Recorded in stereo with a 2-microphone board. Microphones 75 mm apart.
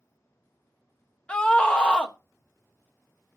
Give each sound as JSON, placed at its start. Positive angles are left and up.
{"t": 1.3, "sound": "a scream", "side_deg": 15, "distance_m": 1.2}